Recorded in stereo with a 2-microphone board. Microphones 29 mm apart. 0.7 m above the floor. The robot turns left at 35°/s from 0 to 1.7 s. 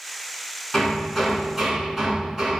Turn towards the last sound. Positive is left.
turn(degrees=-5)